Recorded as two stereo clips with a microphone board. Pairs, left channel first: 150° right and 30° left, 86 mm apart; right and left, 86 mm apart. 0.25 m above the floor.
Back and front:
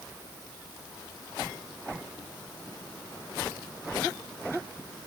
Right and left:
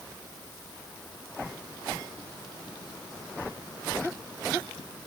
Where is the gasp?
I don't hear a gasp.